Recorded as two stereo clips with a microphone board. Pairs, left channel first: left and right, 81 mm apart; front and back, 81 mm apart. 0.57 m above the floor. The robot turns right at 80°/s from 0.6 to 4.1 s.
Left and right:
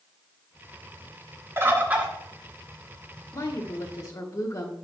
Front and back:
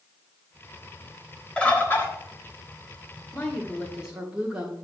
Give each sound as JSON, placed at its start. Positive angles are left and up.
{"t": 1.6, "sound": "a bird", "azimuth_deg": -70, "distance_m": 1.2}
{"t": 3.3, "sound": "a woman speaking", "azimuth_deg": 45, "distance_m": 1.4}